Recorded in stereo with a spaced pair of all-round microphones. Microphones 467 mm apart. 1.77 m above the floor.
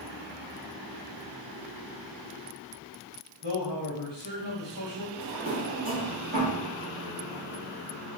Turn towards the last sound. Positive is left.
turn(degrees=-15)  # may be behind; listen again after turning